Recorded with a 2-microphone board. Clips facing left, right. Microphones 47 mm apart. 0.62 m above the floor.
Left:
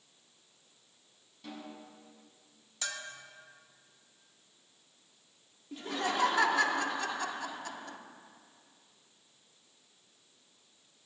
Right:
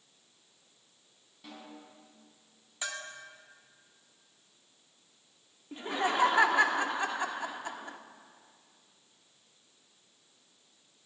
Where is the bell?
15° right (ahead or behind), 1.3 m.